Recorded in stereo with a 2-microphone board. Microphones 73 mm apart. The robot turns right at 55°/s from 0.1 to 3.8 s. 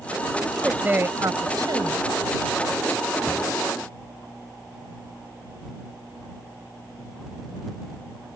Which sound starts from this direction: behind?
A woman speaking, at 0.5 s.